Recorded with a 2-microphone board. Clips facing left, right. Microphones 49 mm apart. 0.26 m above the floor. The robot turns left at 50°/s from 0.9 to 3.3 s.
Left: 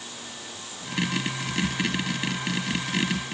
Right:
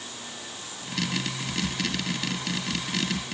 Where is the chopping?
No chopping in this recording.